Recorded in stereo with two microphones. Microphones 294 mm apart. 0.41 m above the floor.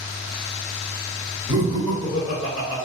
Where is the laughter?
15° right (ahead or behind), 1.2 m; by 2.8 s 50° left (ahead or behind), 1.3 m.